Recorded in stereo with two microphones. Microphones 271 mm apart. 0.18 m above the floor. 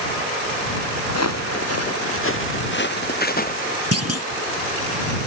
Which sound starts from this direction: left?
Footsteps, at 1.1 s.